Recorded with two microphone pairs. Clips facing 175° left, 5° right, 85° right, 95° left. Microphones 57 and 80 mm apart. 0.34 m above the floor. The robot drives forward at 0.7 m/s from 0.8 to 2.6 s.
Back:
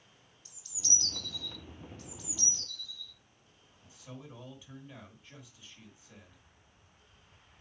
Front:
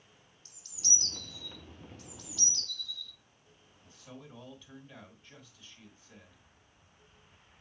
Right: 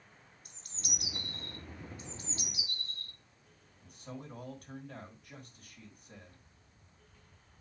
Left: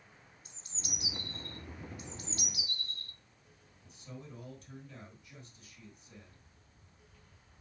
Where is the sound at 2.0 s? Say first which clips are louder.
Even, left 1 dB; 100° right, 1.4 m; by 3.1 s 125° right, 1.5 m.